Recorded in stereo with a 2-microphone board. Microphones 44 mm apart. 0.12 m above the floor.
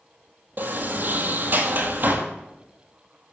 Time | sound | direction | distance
0.6 | a sliding door | 45° right (ahead or behind) | 1.2 m